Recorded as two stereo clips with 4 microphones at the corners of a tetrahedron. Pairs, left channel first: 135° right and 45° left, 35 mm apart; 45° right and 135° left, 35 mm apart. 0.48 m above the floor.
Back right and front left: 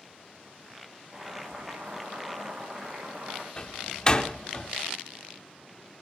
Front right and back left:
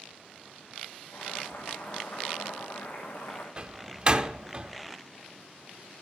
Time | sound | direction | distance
1.1 | boiling | 20° right | 7 m
3.6 | a door slam | 175° left | 0.7 m